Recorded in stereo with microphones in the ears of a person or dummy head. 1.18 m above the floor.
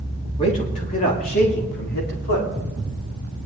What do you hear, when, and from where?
0.4 s a man speaking: 25° left (ahead or behind), 3 m; by 2.5 s 55° left (ahead or behind), 4 m